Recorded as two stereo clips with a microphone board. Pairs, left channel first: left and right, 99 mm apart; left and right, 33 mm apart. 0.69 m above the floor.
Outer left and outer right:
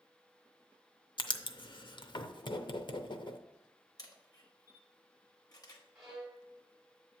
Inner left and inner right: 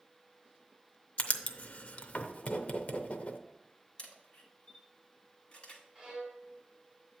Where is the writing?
50° left (ahead or behind), 0.5 m.